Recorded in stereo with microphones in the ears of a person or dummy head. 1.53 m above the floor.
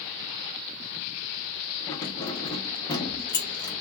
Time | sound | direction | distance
1.9 | keys jangling | 25° left (ahead or behind) | 0.9 m